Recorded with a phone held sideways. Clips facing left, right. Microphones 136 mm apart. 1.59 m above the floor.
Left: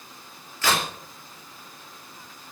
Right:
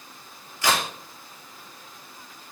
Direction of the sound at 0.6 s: 20° right (ahead or behind).